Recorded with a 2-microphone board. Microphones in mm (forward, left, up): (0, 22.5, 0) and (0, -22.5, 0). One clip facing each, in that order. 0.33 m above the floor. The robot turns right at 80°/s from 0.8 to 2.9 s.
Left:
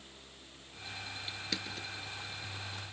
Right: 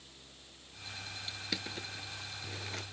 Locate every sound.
1.3 s crushing: 15° left (ahead or behind), 1.0 m; by 2.8 s 70° right (ahead or behind), 1.0 m